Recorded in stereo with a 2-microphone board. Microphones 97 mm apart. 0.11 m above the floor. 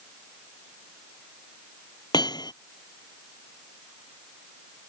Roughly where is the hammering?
Left.